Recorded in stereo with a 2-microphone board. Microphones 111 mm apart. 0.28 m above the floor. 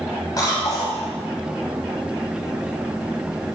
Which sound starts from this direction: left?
A cough, at 0.4 s.